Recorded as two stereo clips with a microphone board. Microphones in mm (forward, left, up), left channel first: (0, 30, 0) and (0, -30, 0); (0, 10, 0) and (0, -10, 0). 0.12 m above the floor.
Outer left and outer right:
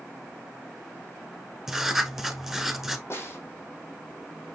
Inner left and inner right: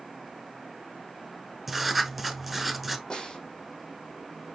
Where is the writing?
10° right (ahead or behind), 0.8 m.